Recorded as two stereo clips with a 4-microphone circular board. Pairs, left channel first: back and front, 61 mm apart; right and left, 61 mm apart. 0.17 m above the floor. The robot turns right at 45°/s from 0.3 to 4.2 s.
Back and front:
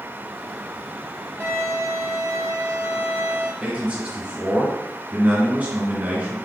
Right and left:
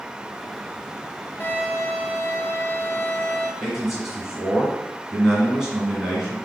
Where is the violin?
35° right, 1.3 m; by 3.5 s 60° left, 1.3 m.